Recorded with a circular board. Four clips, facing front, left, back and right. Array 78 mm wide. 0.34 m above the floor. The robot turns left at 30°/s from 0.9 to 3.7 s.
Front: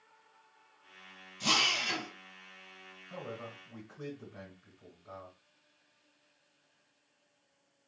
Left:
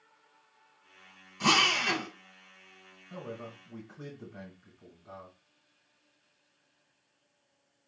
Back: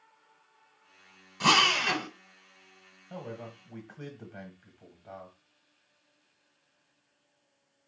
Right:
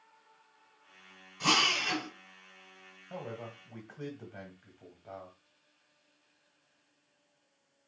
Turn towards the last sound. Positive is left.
turn(degrees=-140)